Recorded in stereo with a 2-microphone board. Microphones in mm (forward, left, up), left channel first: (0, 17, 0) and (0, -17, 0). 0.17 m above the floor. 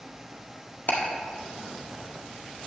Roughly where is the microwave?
No microwave in this recording.